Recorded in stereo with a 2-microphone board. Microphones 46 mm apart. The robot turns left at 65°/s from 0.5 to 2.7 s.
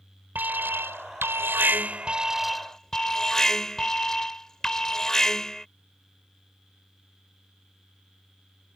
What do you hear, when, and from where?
0.3 s an alarm: 50° right; by 5.7 s 170° left